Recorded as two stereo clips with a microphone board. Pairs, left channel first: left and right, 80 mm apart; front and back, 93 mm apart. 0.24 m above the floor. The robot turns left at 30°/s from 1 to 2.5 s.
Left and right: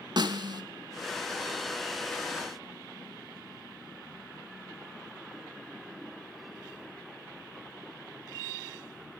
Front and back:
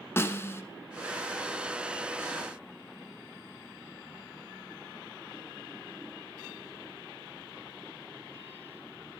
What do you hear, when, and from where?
0.2 s a snare drum: 65° right, 0.7 m